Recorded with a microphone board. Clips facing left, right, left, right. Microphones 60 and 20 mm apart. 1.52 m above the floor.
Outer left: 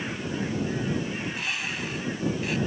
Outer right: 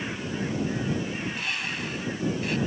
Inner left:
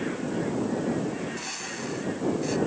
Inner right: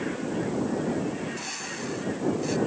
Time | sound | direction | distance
1.2 | a bird | centre (ahead or behind) | ?